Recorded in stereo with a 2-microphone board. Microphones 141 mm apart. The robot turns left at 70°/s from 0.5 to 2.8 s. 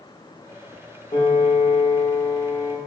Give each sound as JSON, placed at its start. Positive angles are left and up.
{"t": 1.1, "sound": "a piano", "azimuth_deg": 135, "distance_m": 0.9}